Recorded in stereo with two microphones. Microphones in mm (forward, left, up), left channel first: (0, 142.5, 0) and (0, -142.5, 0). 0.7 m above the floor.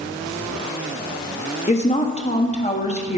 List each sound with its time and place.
1.7 s a woman speaking: 25° left (ahead or behind), 0.8 m